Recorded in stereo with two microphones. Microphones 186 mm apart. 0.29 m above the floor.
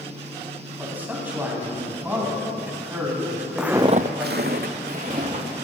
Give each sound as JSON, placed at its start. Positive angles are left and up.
{"t": 0.8, "sound": "a man speaking", "side_deg": -10, "distance_m": 2.5}
{"t": 3.6, "sound": "footsteps", "side_deg": 0, "distance_m": 0.8}